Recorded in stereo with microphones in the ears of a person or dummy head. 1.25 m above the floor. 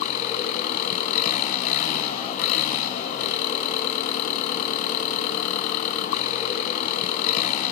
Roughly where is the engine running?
Left.